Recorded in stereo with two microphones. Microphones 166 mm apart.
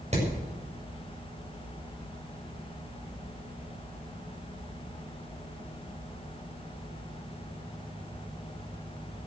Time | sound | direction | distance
0.1 | hammering | 45° right (ahead or behind) | 7 m